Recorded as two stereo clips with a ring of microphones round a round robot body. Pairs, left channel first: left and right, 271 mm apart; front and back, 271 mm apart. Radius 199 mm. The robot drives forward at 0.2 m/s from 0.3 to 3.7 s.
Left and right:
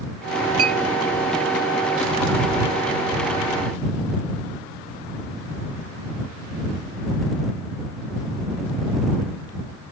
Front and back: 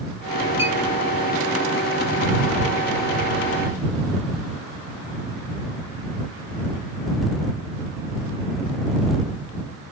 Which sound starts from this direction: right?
A clink, at 0.6 s.